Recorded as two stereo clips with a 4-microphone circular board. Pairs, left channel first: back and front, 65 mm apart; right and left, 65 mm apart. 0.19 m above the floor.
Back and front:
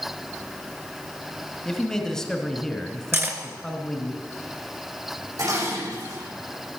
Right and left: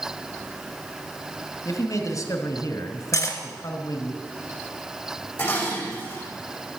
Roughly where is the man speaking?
Right.